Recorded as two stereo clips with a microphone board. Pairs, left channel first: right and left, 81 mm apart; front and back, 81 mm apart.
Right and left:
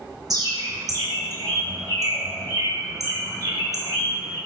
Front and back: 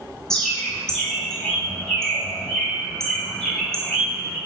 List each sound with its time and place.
0.3 s a bird: 80° left, 0.8 m